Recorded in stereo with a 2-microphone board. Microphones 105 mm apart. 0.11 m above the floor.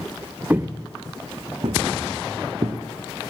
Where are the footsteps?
15° right (ahead or behind), 0.7 m; by 2.8 s 80° right, 1.6 m.